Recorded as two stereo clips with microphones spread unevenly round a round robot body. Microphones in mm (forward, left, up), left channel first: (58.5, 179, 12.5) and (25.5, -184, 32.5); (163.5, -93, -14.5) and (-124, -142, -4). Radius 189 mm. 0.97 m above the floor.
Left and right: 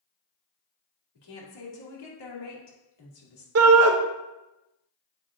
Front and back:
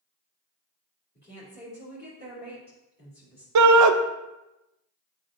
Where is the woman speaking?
75° left, 2.5 m.